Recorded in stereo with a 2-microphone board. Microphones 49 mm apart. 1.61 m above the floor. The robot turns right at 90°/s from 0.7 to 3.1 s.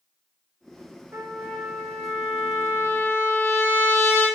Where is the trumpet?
55° right, 1.9 m; by 4.3 s 125° left, 1.9 m.